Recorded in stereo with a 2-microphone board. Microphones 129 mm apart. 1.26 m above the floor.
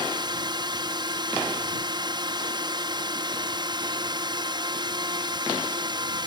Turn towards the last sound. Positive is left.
turn(degrees=-35)  # may be behind; listen again after turning